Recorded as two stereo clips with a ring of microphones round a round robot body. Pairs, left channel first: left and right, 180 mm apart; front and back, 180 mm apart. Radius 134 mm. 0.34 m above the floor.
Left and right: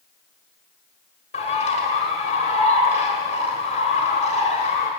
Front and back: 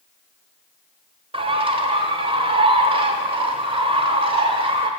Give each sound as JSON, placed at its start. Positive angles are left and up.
{"t": 1.3, "sound": "a bird", "azimuth_deg": 130, "distance_m": 1.2}